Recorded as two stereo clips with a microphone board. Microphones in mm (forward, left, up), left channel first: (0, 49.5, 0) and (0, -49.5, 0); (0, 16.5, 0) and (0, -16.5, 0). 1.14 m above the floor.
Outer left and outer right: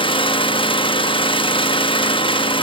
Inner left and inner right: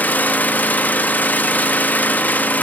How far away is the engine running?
About 0.8 m.